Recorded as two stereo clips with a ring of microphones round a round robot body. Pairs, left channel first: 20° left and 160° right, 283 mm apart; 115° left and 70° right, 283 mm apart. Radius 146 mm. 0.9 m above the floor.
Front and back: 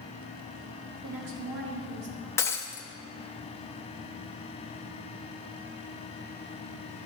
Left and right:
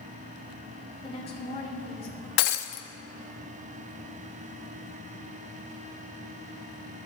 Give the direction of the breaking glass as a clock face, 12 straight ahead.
9 o'clock.